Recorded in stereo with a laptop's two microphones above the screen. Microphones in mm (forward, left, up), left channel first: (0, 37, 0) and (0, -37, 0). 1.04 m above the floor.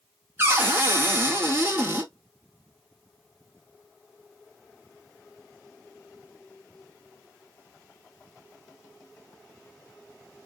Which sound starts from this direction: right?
A cupboard door, at 0.4 s.